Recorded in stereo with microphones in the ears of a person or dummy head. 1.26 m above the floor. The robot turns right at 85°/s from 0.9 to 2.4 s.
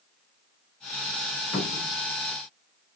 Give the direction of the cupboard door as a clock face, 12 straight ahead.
7 o'clock.